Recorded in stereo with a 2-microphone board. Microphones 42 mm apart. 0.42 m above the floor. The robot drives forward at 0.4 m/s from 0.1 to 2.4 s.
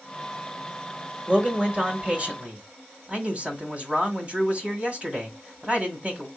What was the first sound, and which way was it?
A man speaking, 30° right (ahead or behind).